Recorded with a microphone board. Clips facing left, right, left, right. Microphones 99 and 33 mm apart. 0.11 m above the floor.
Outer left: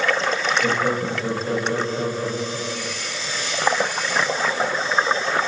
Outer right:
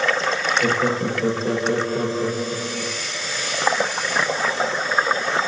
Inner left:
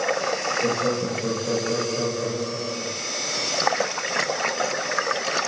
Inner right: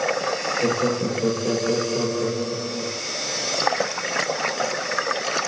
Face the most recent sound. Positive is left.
turn(degrees=-55)  # may be behind; listen again after turning